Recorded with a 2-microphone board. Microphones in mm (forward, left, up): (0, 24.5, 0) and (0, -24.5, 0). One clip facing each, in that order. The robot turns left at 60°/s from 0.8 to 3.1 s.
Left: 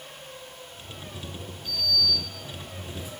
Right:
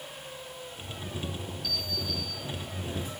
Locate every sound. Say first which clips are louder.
1.6 s a sliding door: left 9 dB; 40° left, 2 m; by 3.1 s 50° right, 2 m